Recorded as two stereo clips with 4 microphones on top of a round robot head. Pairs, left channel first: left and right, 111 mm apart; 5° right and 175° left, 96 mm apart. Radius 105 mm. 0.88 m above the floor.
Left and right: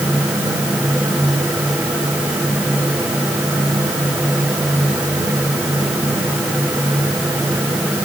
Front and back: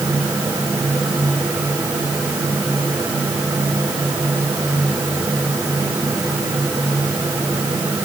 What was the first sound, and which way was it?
Only background noise.